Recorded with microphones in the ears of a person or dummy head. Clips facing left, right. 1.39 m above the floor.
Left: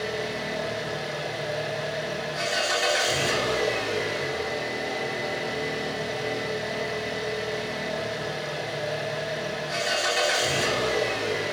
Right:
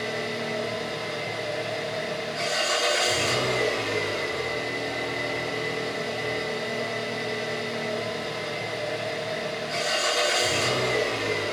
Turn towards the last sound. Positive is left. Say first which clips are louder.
# even
turn(degrees=25)  # may be behind; listen again after turning